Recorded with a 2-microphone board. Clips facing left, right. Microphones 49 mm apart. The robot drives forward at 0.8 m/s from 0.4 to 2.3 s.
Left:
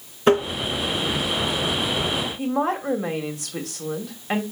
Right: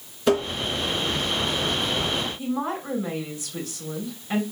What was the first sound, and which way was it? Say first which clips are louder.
Tapping: left 3 dB; 40° left (ahead or behind).